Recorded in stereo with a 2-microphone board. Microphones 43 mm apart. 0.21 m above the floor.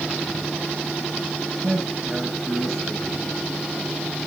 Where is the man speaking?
Centre (ahead or behind), 8.5 m.